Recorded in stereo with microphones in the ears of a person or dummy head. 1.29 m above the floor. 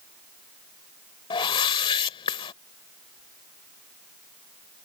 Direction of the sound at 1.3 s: 25° left (ahead or behind).